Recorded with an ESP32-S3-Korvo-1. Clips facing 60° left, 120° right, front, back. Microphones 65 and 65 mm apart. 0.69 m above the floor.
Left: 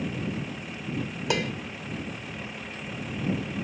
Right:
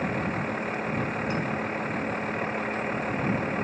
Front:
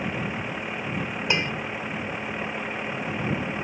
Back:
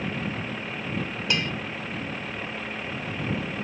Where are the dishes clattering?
65° left.